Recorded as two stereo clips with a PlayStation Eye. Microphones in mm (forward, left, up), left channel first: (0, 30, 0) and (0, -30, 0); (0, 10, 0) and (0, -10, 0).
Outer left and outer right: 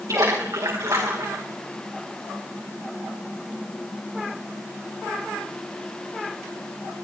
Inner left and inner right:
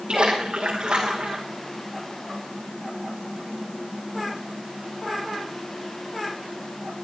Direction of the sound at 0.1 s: 65° right (ahead or behind).